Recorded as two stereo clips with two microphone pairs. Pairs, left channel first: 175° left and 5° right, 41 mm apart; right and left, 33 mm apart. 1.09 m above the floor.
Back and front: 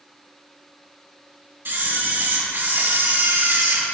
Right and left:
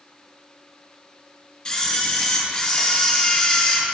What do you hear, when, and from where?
1.6 s a camera shutter: 25° right, 3 m